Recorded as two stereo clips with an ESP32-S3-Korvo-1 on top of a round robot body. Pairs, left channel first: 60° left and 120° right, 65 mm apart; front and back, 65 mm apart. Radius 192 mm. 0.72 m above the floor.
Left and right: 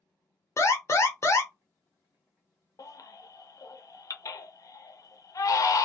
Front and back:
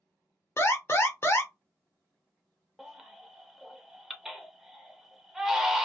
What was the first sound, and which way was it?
An alarm, 35° left.